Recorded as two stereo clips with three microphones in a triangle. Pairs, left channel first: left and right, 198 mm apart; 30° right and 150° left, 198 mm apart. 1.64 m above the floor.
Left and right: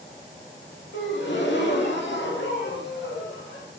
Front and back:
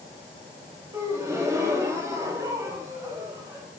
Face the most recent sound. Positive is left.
turn(degrees=75)